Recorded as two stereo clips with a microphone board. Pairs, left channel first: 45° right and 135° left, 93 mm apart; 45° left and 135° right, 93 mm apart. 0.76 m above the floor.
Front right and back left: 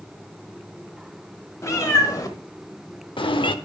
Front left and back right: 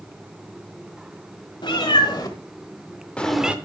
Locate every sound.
1.6 s a cat meowing: 10° left, 1.6 m; by 3.5 s 60° right, 0.6 m